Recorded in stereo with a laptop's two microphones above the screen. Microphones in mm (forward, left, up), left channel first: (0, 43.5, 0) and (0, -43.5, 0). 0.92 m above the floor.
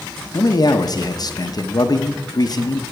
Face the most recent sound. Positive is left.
turn(degrees=50)  # may be behind; listen again after turning